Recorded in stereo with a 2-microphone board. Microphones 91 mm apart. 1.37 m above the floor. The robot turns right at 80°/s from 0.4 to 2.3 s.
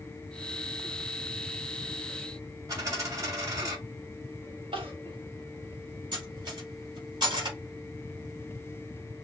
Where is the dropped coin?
40° right (ahead or behind), 2.5 m.